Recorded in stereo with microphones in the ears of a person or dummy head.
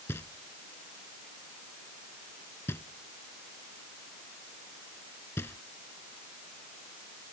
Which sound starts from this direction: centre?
Knocking, at 0.1 s.